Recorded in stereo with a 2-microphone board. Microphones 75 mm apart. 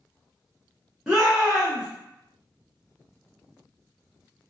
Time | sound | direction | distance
1.1 | a shout | 10° right (ahead or behind) | 1.0 m